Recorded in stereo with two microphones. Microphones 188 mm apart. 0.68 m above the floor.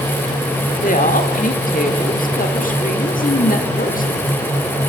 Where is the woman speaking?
45° left (ahead or behind), 1.5 m.